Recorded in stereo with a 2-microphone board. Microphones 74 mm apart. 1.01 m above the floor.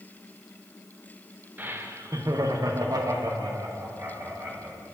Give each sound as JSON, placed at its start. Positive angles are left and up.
{"t": 1.6, "sound": "laughter", "side_deg": -25, "distance_m": 1.1}